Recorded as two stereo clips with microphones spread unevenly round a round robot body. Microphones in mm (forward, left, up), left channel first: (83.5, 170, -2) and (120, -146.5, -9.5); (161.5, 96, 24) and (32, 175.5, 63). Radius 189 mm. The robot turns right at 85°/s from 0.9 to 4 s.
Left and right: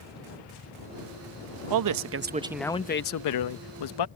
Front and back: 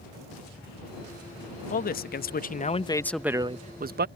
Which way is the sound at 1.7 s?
70° right.